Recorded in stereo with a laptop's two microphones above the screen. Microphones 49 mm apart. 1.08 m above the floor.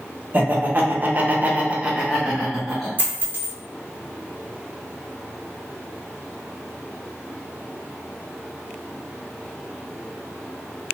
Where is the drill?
No drill in this recording.